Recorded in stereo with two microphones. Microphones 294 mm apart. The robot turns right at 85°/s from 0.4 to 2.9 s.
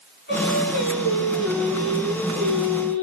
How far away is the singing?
About 9.5 m.